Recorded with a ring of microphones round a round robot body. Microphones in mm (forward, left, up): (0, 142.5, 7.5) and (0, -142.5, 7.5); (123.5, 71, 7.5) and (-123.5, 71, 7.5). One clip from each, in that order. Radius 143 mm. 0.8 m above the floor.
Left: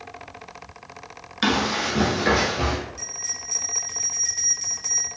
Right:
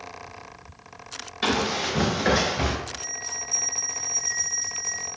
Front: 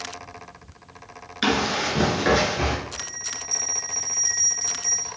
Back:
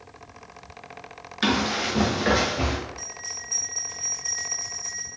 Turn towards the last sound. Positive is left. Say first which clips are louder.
# left 1 dB, front 3 dB
turn(degrees=40)